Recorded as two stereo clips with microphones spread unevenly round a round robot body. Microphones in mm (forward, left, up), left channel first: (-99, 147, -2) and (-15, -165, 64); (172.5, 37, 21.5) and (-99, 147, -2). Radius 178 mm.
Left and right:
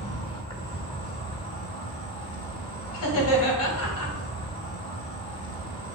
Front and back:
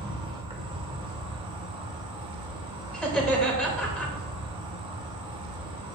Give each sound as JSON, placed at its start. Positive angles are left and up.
{"t": 0.0, "sound": "an insect", "azimuth_deg": 125, "distance_m": 2.0}
{"t": 2.9, "sound": "laughter", "azimuth_deg": 65, "distance_m": 3.0}